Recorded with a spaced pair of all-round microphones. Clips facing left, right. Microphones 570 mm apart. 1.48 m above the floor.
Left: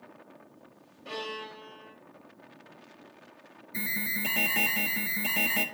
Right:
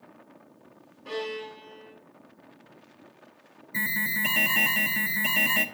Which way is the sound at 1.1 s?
5° left (ahead or behind).